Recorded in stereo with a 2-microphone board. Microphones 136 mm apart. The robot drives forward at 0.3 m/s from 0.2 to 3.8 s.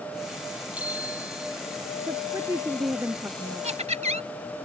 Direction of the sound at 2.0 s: 20° right (ahead or behind).